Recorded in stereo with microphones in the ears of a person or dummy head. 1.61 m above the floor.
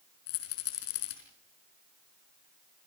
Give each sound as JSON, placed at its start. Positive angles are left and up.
{"t": 0.3, "sound": "a rattle", "side_deg": 60, "distance_m": 5.0}